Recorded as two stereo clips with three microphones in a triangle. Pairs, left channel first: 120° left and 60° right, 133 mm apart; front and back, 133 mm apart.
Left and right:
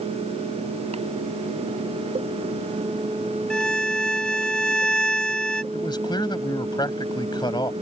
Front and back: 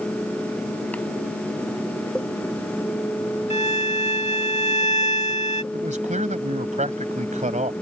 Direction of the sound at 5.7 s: 175° left.